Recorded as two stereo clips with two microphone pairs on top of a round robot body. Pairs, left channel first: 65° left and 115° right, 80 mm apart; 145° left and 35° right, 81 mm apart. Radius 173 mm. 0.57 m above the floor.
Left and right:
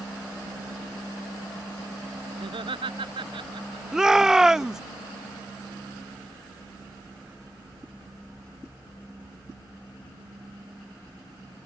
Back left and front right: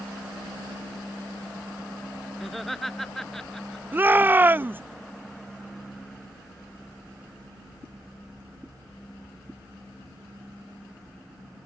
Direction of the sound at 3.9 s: 30° right.